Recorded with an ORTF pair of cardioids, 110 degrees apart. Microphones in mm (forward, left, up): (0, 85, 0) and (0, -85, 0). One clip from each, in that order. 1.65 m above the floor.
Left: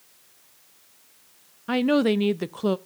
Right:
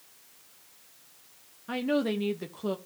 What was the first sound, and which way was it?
A woman speaking, 40° left.